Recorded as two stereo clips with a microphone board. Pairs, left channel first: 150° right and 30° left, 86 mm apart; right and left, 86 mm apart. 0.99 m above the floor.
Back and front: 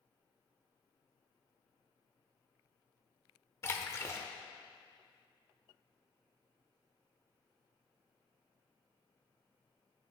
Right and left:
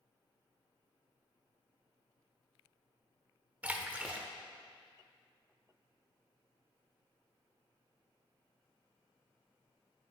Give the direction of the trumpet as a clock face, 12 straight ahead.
No trumpet in this recording.